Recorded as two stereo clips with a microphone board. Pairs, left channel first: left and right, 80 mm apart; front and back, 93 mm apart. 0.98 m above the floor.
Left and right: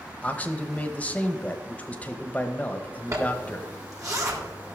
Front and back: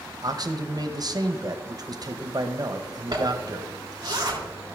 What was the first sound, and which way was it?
A man speaking, 155° left.